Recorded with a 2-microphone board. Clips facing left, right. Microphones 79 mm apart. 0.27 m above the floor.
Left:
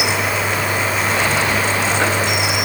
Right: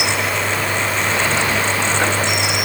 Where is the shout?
I don't hear a shout.